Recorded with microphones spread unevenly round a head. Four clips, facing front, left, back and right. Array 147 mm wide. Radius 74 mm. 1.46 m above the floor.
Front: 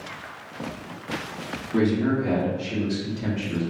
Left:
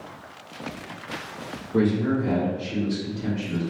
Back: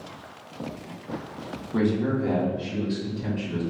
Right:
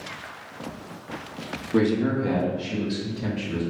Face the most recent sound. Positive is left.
turn(degrees=-55)